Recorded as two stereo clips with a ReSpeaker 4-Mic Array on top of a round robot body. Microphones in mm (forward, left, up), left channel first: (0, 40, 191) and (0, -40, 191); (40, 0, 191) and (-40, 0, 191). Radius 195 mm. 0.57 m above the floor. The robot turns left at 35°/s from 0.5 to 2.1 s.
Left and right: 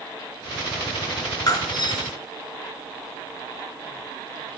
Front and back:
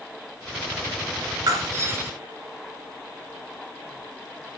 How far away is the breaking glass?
About 3 m.